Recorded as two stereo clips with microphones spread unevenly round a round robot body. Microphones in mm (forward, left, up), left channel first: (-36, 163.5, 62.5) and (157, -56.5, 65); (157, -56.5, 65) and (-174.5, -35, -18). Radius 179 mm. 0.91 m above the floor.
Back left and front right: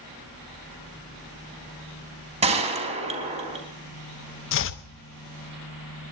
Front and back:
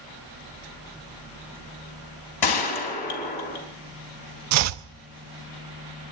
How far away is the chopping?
About 0.6 m.